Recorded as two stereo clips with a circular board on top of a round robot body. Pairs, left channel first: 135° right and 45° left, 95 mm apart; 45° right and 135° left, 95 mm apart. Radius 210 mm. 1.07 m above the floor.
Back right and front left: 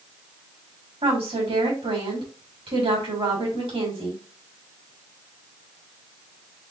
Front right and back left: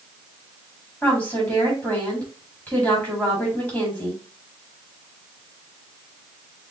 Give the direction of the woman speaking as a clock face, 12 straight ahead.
11 o'clock.